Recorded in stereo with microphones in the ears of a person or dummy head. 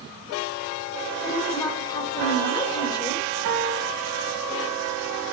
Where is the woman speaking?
20° left (ahead or behind), 2 m.